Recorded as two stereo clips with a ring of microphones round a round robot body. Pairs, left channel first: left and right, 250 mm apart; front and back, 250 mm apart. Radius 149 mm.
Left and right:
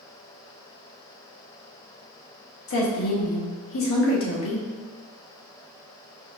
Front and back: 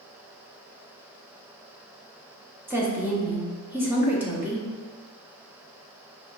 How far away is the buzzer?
I don't hear a buzzer.